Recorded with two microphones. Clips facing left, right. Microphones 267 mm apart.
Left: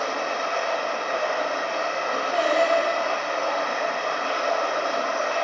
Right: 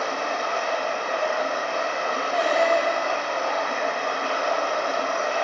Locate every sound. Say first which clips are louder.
0.0 s running water: even; 50° left (ahead or behind), 0.8 m
2.3 s singing: even; 55° left (ahead or behind), 1.4 m